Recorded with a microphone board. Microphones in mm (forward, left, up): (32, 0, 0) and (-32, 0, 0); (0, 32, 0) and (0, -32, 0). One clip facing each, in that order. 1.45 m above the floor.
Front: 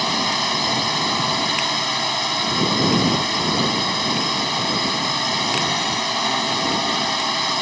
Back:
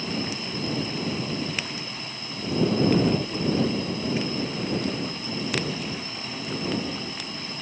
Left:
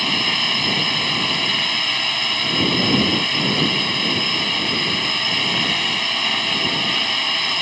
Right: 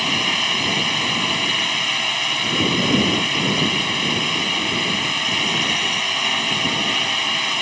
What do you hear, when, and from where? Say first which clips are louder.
0.0 s a drone: front 9 dB, even; 5° right